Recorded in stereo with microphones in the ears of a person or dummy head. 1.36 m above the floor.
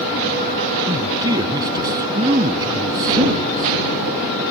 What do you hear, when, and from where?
0.9 s a man speaking: 20° right (ahead or behind)